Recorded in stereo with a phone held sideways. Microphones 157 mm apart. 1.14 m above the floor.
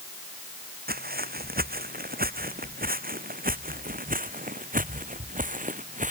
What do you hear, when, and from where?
0.9 s footsteps: 75° right (ahead or behind); by 6.1 s 55° right (ahead or behind)